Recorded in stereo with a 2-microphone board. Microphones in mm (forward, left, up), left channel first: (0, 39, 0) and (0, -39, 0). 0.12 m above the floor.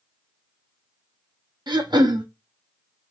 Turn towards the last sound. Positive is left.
turn(degrees=-70)  # may be behind; listen again after turning